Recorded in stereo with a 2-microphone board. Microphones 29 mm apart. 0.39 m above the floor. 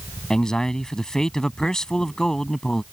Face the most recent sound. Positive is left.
turn(degrees=25)  # may be behind; listen again after turning